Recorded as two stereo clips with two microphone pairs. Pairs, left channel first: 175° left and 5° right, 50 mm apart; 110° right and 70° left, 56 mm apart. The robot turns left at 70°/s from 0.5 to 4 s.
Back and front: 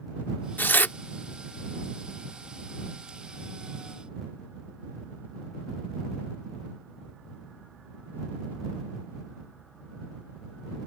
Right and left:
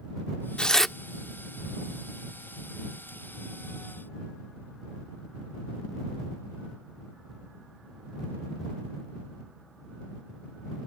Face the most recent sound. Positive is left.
turn(degrees=-50)